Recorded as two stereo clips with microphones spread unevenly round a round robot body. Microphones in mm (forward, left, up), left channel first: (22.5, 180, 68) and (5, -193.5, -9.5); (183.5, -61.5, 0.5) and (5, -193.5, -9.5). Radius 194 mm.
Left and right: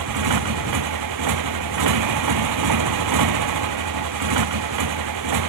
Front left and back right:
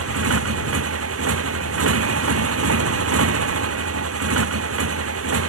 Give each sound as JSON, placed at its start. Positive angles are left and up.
{"t": 0.0, "sound": "a motorcycle", "azimuth_deg": -135}